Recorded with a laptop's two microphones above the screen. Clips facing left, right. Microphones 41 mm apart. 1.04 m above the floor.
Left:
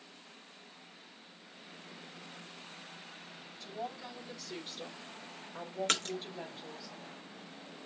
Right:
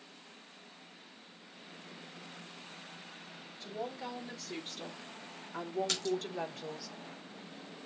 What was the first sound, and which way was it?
A woman speaking, 45° right (ahead or behind).